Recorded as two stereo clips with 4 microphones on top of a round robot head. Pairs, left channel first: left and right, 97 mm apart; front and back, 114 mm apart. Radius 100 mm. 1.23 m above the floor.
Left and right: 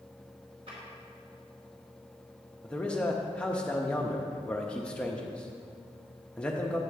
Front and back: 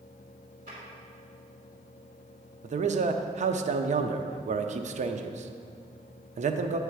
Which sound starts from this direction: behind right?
A drawer, at 0.7 s.